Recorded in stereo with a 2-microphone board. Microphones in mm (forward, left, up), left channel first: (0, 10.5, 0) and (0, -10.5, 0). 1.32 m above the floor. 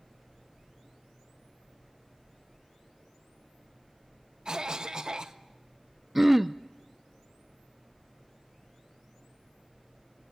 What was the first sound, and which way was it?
A cough, 35° right (ahead or behind).